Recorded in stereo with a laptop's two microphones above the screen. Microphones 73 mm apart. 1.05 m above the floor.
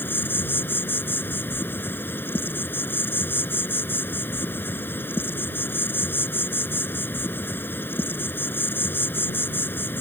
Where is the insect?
30° left (ahead or behind).